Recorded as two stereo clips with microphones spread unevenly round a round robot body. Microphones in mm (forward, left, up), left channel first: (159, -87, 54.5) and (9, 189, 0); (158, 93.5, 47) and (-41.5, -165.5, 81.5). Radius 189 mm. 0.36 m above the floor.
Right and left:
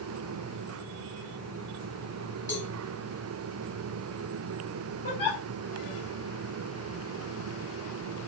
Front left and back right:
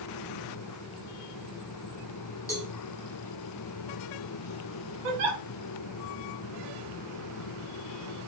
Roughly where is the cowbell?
Ahead.